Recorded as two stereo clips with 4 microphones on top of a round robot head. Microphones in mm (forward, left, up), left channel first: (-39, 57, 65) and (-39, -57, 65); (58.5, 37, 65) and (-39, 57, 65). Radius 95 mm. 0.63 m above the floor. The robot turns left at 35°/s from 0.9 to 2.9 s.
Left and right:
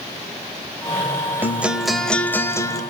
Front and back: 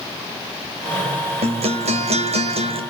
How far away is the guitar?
About 2 m.